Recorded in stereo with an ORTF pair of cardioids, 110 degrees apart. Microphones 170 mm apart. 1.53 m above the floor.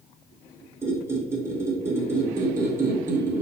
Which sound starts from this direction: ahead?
A squeak, at 0.8 s.